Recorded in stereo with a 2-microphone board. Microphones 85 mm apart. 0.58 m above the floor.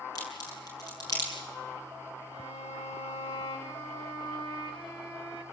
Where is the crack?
50° left (ahead or behind), 7 m.